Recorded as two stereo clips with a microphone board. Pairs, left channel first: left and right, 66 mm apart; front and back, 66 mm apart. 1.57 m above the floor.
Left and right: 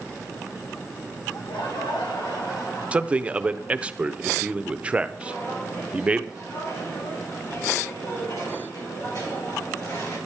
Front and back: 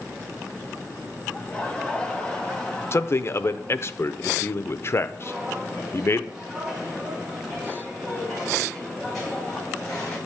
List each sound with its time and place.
1.3 s laughter: 75° left, 2 m; by 3.9 s 80° left, 3.5 m
2.9 s a man speaking: 25° right, 0.5 m
5.2 s footsteps: 110° left, 5 m; by 10.2 s 80° left, 7 m